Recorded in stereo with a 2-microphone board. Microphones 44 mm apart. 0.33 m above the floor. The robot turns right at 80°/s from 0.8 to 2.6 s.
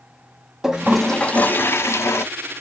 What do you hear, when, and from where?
0.6 s a toilet flushing: 10° right, 0.5 m; by 2.2 s 105° left, 0.5 m